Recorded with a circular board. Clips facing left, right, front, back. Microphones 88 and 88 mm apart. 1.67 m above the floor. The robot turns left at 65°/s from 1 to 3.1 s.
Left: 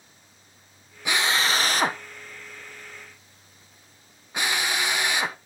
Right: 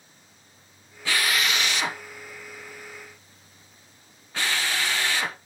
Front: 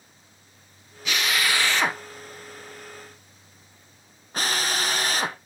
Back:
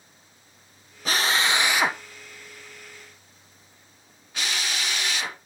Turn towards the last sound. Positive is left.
turn(degrees=25)